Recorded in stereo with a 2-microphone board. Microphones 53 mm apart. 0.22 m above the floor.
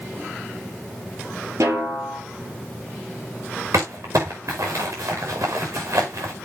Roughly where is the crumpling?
Right.